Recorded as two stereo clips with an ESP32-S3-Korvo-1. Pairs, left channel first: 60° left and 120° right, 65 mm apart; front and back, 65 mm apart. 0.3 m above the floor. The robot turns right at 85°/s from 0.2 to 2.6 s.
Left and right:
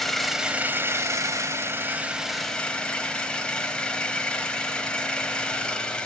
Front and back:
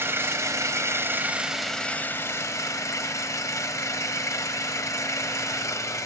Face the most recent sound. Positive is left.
turn(degrees=-10)